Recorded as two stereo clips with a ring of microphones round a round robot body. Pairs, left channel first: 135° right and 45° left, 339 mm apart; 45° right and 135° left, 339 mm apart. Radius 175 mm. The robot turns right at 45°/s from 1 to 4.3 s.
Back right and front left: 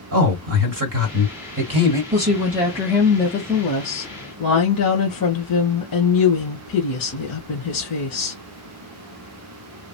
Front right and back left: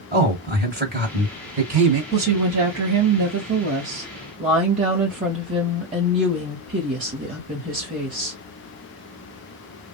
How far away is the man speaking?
About 2 m.